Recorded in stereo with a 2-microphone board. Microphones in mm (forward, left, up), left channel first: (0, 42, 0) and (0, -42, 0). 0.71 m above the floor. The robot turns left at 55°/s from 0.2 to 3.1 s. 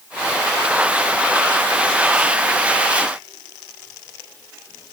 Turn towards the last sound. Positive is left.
No sound to turn to.